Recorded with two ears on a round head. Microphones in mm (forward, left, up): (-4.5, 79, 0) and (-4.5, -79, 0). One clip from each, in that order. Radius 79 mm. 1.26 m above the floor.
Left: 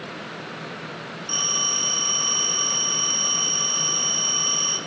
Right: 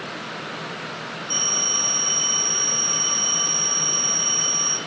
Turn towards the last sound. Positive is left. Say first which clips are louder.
# right 1 dB
turn(degrees=55)  # may be behind; listen again after turning